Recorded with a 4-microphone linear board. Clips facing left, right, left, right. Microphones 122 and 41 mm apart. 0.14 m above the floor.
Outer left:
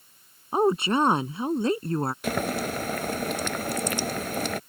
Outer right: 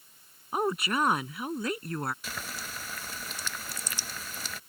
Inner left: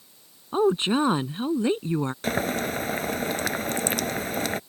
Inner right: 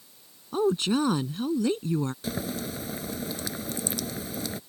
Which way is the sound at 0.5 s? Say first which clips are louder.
Outer left 7 dB, inner left 3 dB; 30° left (ahead or behind).